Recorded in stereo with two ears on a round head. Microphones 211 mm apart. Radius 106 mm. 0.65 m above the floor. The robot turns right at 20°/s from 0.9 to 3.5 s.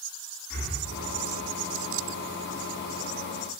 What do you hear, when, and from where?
0.5 s breathing: 45° left (ahead or behind), 0.9 m